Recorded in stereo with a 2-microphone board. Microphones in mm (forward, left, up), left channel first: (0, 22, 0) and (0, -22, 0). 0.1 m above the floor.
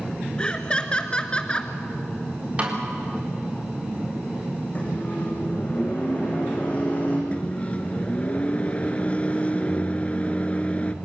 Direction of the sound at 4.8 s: 30° left (ahead or behind).